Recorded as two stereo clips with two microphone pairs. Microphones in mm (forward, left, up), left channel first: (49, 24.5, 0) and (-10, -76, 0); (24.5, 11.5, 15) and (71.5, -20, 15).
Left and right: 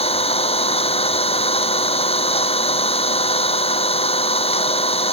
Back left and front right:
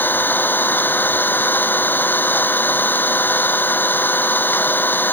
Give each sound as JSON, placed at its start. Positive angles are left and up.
{"t": 0.0, "sound": "an engine running", "azimuth_deg": 90}